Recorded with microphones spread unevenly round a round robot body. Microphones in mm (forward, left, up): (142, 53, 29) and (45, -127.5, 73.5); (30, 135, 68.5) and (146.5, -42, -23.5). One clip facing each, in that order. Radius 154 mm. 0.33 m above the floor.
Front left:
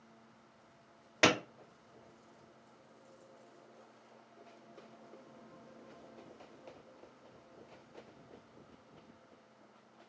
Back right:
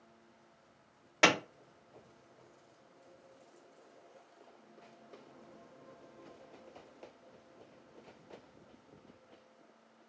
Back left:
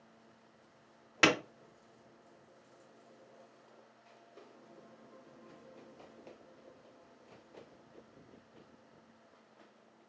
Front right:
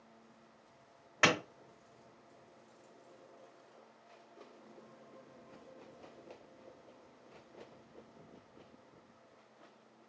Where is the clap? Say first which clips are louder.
Even, back left 3 dB; 110° left, 0.7 m.